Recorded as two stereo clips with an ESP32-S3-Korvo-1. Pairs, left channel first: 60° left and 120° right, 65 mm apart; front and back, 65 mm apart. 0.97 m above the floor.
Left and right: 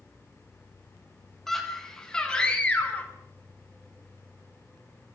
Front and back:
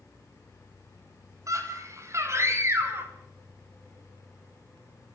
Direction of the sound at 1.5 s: 145° left.